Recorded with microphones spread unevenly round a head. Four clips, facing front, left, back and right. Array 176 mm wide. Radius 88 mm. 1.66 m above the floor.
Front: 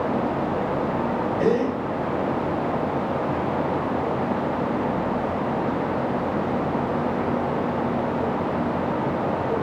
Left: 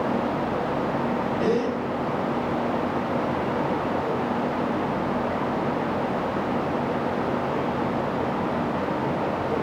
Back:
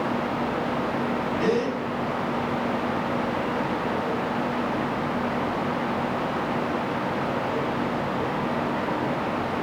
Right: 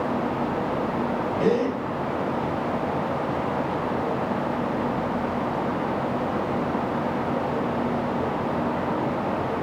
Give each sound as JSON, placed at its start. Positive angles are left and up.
{"t": 1.4, "sound": "a gasp", "azimuth_deg": -45, "distance_m": 3.5}